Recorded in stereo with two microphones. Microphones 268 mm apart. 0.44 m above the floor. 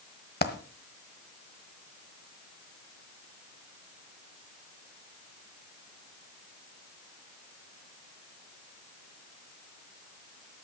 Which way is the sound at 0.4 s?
40° left (ahead or behind).